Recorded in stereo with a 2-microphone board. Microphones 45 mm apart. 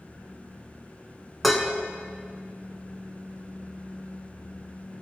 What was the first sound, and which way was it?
Dishes clattering, centre (ahead or behind).